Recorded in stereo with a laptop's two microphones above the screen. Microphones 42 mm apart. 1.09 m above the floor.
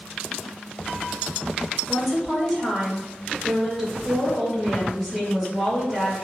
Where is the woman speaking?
5° right (ahead or behind), 1.8 m.